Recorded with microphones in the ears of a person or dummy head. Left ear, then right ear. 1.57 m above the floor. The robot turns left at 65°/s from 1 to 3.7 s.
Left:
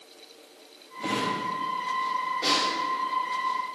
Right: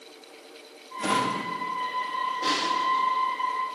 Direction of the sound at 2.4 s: 25° left (ahead or behind).